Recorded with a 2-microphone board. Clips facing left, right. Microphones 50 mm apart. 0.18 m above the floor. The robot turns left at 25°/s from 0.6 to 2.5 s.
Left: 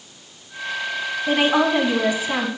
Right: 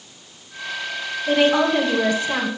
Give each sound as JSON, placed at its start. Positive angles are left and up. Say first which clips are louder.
{"t": 1.3, "sound": "a woman speaking", "louder": "right 1 dB", "side_deg": 20, "distance_m": 1.7}